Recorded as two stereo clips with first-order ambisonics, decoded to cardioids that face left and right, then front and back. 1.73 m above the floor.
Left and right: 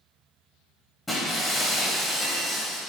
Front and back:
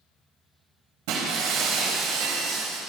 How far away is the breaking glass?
About 5.5 m.